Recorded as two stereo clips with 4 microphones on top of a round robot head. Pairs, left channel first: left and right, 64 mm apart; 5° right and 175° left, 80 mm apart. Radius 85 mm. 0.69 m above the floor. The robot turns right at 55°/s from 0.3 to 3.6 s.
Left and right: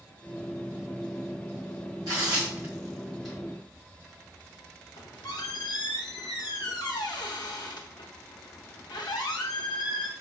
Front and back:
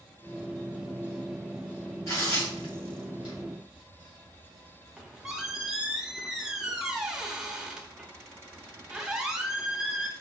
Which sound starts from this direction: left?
A squeak, at 5.0 s.